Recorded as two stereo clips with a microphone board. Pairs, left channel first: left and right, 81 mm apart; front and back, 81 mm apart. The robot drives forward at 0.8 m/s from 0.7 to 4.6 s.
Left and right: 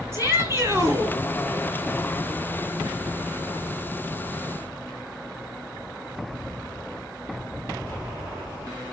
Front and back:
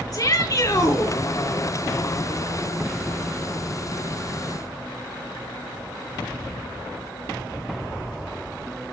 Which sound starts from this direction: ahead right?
A shout, at 0.1 s.